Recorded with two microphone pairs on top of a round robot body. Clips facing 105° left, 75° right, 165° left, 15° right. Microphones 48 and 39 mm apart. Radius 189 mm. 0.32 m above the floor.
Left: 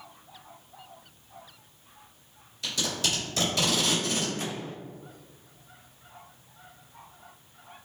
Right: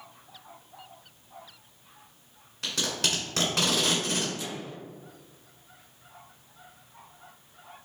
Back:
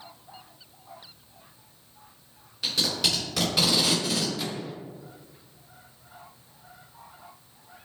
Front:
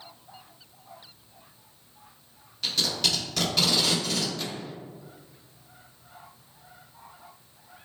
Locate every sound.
2.6 s tape being pulled: 115° right, 1.9 m
4.4 s a microwave: 70° left, 0.7 m